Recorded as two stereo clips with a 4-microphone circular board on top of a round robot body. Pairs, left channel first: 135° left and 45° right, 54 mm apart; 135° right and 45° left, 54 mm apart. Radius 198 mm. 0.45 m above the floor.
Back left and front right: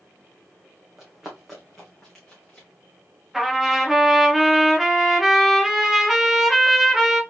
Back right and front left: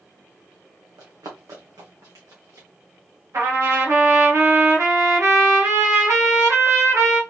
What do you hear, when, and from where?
1.0 s running footsteps: 40° left, 1.8 m; by 2.7 s 60° left, 2.5 m
3.3 s a trumpet: 40° left, 2.5 m